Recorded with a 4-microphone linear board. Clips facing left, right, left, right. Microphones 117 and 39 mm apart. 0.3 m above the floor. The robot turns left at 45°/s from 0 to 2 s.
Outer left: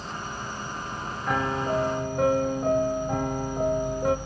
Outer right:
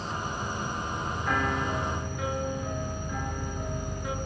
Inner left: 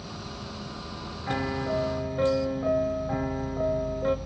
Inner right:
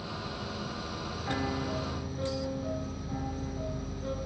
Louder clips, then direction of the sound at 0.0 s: Outer right 2 dB, inner right 1 dB; 30° right.